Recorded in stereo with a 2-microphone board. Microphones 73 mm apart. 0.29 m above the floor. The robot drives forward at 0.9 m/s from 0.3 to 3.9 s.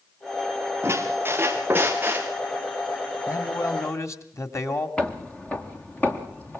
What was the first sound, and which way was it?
A squeak, 35° right (ahead or behind).